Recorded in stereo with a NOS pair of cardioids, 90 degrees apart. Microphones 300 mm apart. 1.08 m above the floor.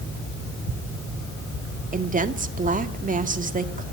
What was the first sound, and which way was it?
A woman speaking, 25° right.